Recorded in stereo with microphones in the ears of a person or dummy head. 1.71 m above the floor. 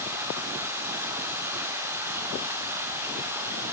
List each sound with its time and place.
0.0 s running water: 15° right (ahead or behind), 3.5 m